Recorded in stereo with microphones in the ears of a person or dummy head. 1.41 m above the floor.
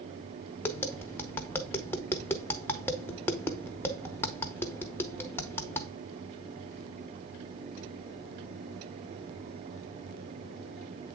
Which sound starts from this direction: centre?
Tapping, at 0.6 s.